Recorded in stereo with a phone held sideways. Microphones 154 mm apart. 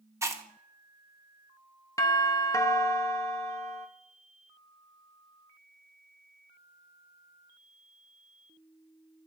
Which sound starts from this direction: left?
A doorbell, at 2.0 s.